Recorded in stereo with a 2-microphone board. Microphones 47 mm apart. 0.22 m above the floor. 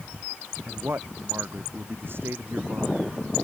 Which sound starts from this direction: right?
A man speaking, at 0.7 s.